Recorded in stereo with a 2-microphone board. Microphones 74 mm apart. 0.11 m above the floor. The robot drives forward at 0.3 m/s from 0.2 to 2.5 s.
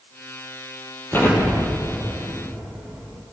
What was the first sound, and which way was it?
An explosion, 30° left (ahead or behind).